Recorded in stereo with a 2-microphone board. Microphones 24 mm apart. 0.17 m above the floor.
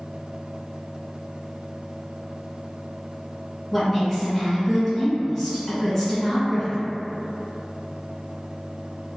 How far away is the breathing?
I don't hear breathing.